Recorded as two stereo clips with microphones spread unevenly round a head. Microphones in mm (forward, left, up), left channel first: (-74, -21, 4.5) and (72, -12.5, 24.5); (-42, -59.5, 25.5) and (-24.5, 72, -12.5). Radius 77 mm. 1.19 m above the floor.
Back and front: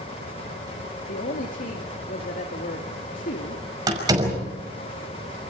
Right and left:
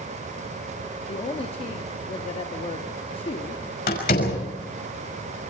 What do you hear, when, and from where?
1.1 s a woman speaking: 145° right, 2 m
3.9 s a door slam: 60° right, 6 m